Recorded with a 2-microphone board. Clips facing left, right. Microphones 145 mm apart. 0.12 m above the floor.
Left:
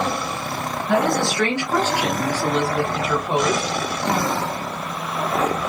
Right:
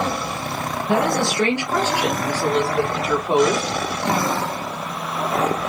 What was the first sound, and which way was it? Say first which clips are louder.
A woman speaking: even; 20° right (ahead or behind).